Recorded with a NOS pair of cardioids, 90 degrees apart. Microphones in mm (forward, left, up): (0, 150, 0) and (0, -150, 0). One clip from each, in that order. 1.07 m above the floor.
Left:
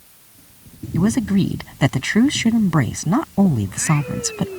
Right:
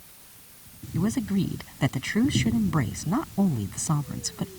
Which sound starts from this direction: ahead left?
A man speaking, at 0.9 s.